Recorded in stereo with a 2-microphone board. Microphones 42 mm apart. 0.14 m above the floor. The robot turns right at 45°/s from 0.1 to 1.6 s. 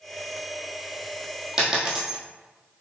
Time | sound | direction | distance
1.6 | a dropped coin | 15° right (ahead or behind) | 1.2 m